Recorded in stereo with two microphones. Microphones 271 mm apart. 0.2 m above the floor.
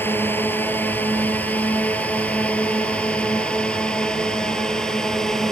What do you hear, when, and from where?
0.0 s a drone: 5° left (ahead or behind); by 5.5 s centre (ahead or behind)